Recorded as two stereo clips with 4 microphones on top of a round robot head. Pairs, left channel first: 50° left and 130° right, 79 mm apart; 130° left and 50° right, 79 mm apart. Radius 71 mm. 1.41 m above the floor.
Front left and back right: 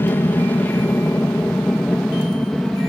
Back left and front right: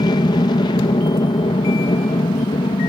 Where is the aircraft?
110° left; by 2.9 s 135° left.